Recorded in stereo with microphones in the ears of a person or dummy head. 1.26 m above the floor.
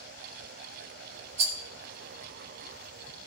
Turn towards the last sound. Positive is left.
turn(degrees=-35)  # may be behind; listen again after turning